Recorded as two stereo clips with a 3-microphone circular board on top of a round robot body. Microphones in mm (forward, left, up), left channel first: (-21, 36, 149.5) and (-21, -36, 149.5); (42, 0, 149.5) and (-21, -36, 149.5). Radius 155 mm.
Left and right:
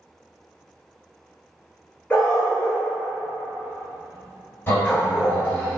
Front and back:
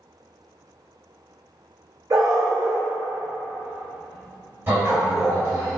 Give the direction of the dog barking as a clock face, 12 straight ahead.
7 o'clock.